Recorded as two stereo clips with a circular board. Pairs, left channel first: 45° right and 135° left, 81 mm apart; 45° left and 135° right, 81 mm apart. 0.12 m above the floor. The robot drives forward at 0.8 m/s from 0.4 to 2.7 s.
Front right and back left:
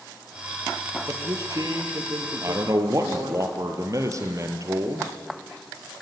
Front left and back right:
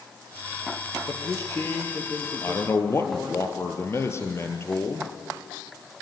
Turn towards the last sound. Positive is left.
turn(degrees=95)